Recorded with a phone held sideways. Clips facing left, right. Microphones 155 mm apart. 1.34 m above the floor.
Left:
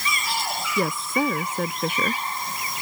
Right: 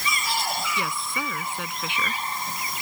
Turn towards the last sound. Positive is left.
turn(degrees=45)  # may be behind; listen again after turning